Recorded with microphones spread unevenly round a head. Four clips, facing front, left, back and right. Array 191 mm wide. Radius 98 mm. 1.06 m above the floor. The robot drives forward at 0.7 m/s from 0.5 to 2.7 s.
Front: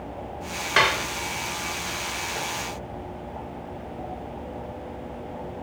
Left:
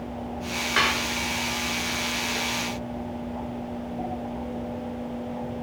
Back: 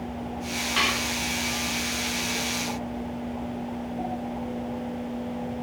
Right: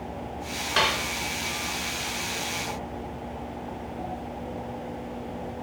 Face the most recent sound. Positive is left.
turn(degrees=-35)